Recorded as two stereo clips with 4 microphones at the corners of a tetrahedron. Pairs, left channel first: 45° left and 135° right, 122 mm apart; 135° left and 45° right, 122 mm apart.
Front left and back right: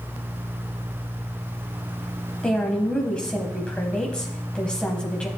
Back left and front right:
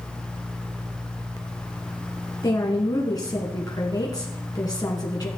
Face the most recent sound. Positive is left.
turn(degrees=120)